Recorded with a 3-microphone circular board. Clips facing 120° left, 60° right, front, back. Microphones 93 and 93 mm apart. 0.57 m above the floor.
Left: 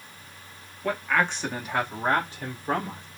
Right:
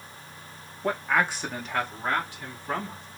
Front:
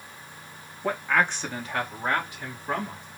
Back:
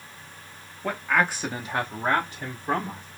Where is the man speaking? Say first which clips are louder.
Even, even; 75° right, 1.0 m; by 3.0 s 145° left, 1.5 m.